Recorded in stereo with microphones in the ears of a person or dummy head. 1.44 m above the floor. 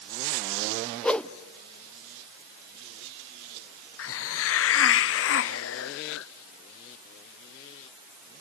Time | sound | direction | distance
1.0 | a whoosh | 10° left (ahead or behind) | 0.7 m
4.0 | a hiss | 60° left (ahead or behind) | 0.8 m